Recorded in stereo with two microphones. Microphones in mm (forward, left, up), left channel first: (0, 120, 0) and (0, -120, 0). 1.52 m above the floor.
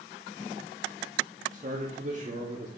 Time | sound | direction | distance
1.5 | a man speaking | 35° right (ahead or behind) | 2 m